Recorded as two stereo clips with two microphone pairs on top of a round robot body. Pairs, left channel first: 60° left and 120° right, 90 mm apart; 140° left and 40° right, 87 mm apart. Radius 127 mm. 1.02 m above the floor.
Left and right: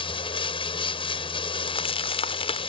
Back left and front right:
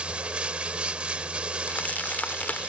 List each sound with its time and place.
0.0 s running water: 35° left
1.7 s crumpling: 65° left